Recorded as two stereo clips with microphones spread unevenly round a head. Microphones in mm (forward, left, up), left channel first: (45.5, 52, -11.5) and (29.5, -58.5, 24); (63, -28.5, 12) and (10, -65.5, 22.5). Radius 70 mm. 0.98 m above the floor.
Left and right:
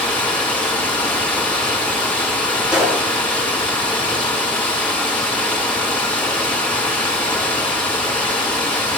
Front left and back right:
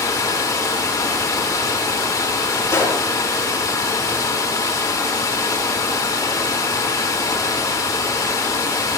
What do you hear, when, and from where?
0.0 s running water: straight ahead, 4 m
2.7 s a gunshot: 15° right, 7 m